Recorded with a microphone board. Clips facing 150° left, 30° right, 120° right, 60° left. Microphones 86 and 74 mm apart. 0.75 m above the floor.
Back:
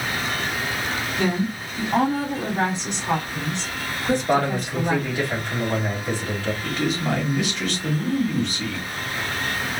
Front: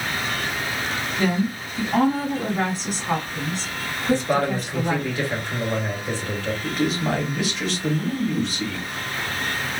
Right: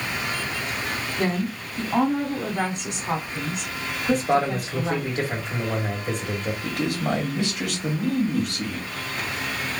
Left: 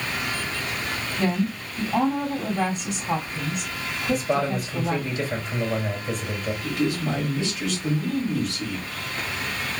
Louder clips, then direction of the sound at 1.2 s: Front 1 dB, left 2 dB; 145° right.